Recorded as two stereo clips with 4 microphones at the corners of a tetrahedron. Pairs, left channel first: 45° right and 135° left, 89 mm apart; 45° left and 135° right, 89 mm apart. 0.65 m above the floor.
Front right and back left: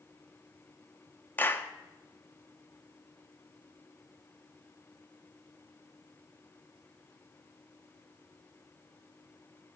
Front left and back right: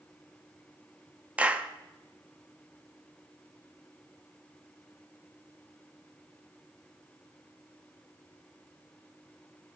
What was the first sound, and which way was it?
A clap, 75° right.